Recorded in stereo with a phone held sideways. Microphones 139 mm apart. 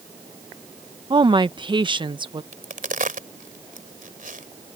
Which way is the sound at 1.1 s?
35° right (ahead or behind).